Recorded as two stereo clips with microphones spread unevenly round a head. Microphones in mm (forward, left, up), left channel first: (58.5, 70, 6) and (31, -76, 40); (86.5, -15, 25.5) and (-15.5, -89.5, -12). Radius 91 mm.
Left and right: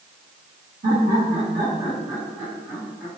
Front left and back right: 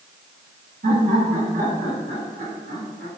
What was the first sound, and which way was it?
Laughter, 150° right.